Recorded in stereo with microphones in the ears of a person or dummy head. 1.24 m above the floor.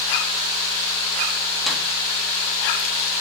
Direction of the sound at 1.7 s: Centre (ahead or behind).